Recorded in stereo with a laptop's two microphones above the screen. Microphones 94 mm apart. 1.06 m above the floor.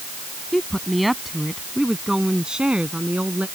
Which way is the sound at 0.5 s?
Centre (ahead or behind).